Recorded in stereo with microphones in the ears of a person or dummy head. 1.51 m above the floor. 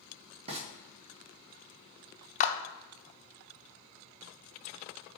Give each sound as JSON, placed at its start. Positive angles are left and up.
{"t": 0.5, "sound": "frying", "side_deg": -40, "distance_m": 1.8}
{"t": 2.4, "sound": "a clap", "side_deg": 40, "distance_m": 0.8}